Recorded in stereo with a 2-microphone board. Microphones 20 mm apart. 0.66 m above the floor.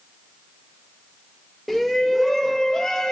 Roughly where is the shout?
Centre.